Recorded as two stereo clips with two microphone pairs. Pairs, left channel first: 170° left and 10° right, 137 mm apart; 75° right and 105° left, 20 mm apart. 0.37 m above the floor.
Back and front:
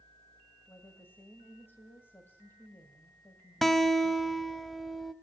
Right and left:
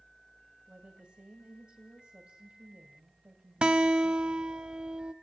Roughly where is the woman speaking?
Left.